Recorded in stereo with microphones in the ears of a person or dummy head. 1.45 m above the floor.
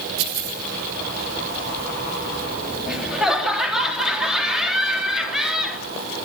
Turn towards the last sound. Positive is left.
turn(degrees=0)  # may be behind; listen again after turning